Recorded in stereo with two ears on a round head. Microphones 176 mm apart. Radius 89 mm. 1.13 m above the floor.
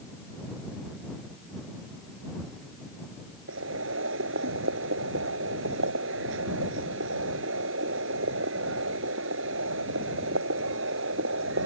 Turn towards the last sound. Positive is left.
turn(degrees=-75)  # may be behind; listen again after turning